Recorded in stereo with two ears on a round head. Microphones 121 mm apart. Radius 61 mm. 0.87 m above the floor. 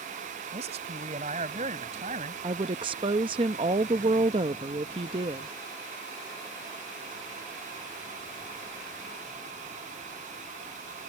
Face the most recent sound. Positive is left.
turn(degrees=-35)  # may be behind; listen again after turning